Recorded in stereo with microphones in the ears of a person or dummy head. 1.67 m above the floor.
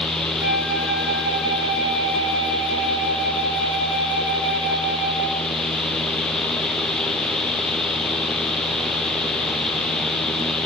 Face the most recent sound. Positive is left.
turn(degrees=75)  # may be behind; listen again after turning